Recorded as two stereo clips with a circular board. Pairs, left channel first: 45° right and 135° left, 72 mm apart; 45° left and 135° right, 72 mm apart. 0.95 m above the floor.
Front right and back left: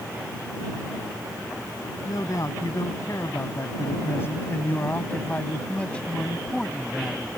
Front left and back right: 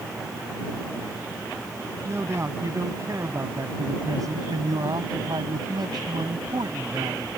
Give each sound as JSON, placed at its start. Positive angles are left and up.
{"t": 2.0, "sound": "a man speaking", "azimuth_deg": -80}